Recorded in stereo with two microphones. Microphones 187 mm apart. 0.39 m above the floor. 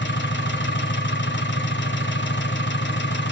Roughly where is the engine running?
Left.